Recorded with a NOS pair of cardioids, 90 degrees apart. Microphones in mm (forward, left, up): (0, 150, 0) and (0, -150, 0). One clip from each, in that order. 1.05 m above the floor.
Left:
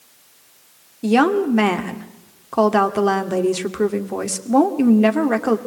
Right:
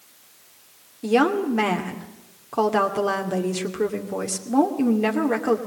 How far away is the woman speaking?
About 2.5 m.